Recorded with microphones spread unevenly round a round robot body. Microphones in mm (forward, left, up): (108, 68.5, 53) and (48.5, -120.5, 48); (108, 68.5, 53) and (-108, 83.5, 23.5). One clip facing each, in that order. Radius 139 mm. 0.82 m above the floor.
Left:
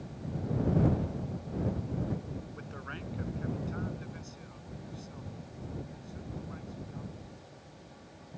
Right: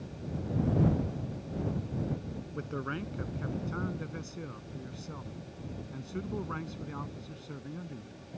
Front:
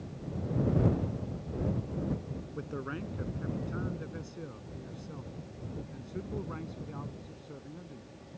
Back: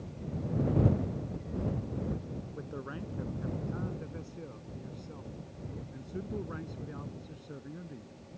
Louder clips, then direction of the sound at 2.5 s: Right 8 dB, front 6 dB; 75° right.